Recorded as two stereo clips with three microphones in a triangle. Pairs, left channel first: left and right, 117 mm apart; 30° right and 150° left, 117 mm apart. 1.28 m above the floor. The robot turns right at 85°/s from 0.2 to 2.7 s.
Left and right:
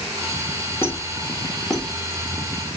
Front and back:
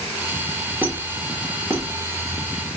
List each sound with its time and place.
0.8 s a squeak: 105° left, 0.6 m; by 1.9 s 165° right, 0.6 m